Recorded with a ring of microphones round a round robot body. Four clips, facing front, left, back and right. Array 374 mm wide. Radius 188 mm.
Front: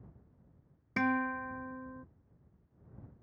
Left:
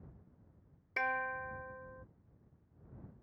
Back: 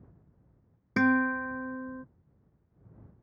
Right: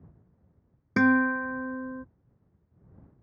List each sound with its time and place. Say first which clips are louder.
1.0 s a guitar: right 15 dB, back 7 dB; 110° right